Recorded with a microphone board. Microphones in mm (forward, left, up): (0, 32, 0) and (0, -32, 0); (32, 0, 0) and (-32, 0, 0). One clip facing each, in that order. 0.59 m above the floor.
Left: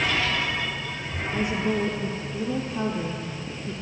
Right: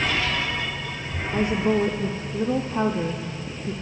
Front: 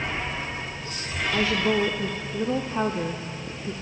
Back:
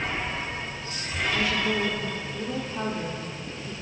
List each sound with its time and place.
1.3 s a woman speaking: 50° right, 1.3 m